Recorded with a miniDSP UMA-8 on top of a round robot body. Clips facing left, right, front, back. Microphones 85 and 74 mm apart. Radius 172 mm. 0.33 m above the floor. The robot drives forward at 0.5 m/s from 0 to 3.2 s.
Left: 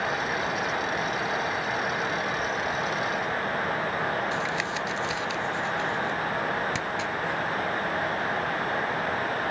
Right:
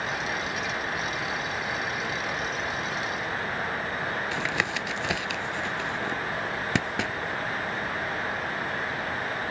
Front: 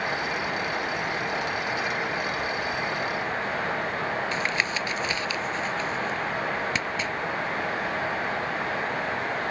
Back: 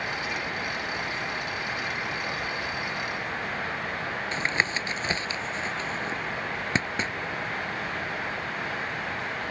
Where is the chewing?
I don't hear chewing.